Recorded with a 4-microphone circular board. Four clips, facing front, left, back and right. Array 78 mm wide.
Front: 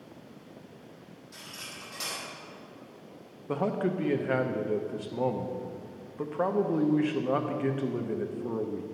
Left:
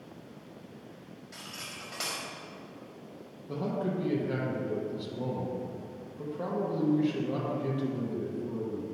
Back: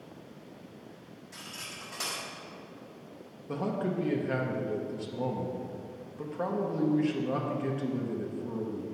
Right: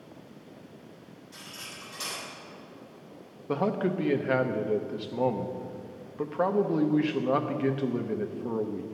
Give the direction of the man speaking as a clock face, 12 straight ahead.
2 o'clock.